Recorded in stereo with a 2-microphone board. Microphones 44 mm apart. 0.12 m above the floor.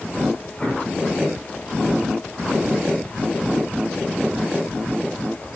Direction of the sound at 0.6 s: 20° left (ahead or behind).